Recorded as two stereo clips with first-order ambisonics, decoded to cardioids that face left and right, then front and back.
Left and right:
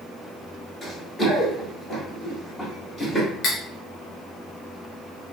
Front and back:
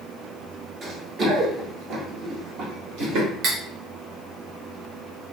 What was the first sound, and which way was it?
Running footsteps, 160° left.